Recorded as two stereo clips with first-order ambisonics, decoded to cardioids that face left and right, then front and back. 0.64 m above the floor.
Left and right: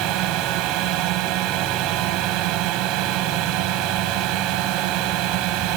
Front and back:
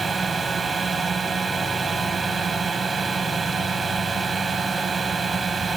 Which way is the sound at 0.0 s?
110° right.